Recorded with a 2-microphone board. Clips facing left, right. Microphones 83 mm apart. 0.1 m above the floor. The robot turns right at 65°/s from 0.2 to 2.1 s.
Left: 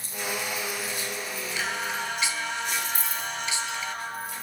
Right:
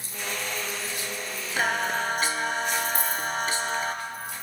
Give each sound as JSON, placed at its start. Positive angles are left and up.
{"t": 1.6, "sound": "singing", "azimuth_deg": -100, "distance_m": 0.6}
{"t": 3.0, "sound": "a dropped coin", "side_deg": -60, "distance_m": 2.0}